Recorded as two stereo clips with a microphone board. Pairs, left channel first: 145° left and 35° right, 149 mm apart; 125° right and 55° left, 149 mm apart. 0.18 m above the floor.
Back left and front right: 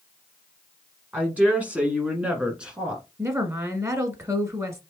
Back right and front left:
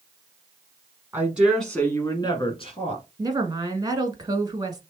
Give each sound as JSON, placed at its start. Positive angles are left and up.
{"t": 1.1, "sound": "a woman speaking", "azimuth_deg": 20, "distance_m": 1.2}
{"t": 3.2, "sound": "a woman speaking", "azimuth_deg": 20, "distance_m": 1.2}